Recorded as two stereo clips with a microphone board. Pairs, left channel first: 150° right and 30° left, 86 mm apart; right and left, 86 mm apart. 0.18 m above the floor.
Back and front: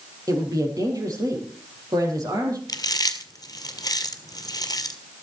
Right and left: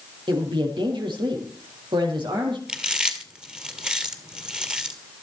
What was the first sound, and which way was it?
A woman speaking, 70° left.